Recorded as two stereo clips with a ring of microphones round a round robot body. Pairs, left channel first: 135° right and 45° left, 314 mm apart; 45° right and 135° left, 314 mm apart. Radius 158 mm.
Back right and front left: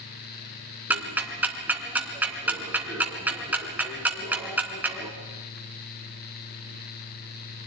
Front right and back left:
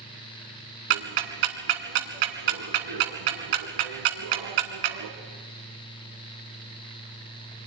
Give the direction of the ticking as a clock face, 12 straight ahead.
8 o'clock.